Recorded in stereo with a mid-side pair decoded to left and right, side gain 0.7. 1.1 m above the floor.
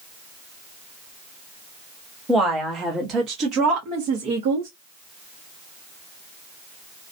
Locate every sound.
2.3 s a woman speaking: 20° right, 1.5 m; by 4.7 s 75° right, 1.6 m